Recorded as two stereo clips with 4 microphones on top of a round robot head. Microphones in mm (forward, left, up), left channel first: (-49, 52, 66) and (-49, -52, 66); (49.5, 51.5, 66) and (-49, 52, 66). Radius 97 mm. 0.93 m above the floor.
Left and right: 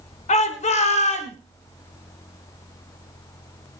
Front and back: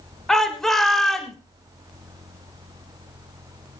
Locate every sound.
0.3 s a shout: 85° left, 3.5 m